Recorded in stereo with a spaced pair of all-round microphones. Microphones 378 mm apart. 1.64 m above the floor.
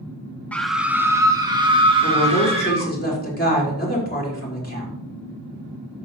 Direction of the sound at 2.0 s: 25° left (ahead or behind).